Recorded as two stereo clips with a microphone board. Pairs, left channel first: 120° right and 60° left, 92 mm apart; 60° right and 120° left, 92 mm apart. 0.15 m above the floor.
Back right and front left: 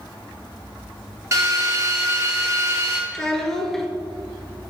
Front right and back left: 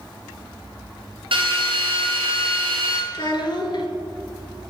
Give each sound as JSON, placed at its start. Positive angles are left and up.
{"t": 1.3, "sound": "a drill", "azimuth_deg": 115, "distance_m": 1.5}
{"t": 3.1, "sound": "a child speaking", "azimuth_deg": -35, "distance_m": 1.6}